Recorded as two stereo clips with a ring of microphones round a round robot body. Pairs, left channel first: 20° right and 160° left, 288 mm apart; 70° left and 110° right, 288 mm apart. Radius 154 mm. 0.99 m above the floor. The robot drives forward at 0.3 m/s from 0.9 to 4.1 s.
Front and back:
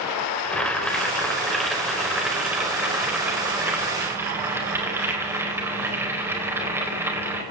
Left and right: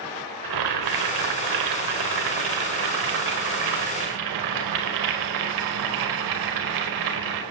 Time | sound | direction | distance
0.4 | boiling | 110° right | 4.5 m